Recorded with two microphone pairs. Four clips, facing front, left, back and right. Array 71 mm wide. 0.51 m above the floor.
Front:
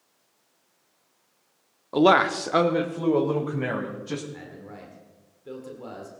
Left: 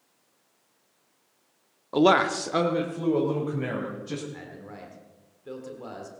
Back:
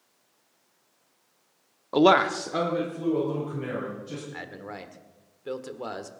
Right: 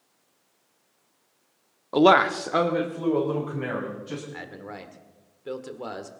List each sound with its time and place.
1.9 s a man speaking: 165° right, 0.7 m; by 4.2 s 20° right, 3.5 m
4.3 s a man speaking: 155° right, 1.5 m